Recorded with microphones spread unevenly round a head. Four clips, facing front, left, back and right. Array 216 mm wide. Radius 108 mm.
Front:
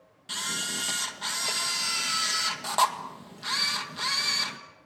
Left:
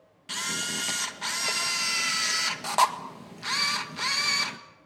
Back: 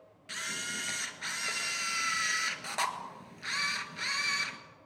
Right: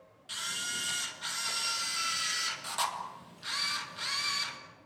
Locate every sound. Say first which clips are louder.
0.3 s a camera shutter: left 6 dB, front 4 dB; 70° left, 1.8 m